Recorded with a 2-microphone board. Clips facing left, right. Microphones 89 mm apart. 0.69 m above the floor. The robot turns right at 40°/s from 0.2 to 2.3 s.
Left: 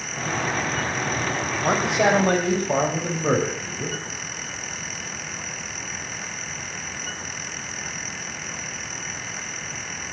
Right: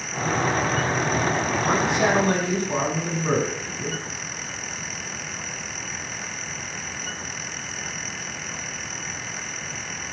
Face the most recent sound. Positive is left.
turn(degrees=60)  # may be behind; listen again after turning